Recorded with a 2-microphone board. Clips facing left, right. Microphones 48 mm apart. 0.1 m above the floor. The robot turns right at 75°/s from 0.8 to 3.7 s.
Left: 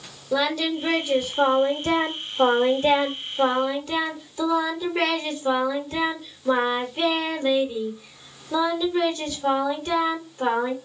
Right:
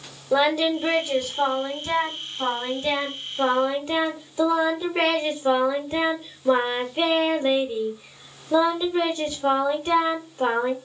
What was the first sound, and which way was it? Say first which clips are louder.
Singing: right 3 dB; 20° right.